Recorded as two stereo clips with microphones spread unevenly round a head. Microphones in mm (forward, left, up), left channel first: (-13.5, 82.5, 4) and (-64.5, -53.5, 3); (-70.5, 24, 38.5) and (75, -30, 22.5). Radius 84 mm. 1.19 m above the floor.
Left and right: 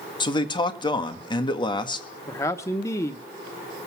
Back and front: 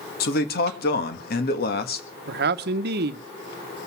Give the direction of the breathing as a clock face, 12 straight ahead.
I don't hear breathing.